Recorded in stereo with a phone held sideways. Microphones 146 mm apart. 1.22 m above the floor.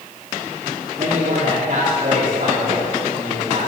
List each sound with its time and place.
1.0 s a man speaking: 55° right (ahead or behind), 3 m